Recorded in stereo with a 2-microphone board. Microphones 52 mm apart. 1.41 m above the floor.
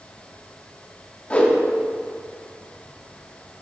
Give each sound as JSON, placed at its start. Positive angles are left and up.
{"t": 1.3, "sound": "a whoosh", "side_deg": 25, "distance_m": 1.2}